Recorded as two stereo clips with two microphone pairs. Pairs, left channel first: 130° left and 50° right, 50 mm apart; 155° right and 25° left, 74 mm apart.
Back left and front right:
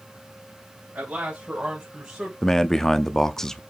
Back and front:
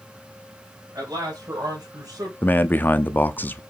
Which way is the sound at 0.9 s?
Straight ahead.